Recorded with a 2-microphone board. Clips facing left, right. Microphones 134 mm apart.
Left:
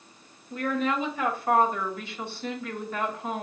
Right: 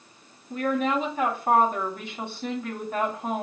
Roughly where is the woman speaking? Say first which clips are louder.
Right 2 dB; right.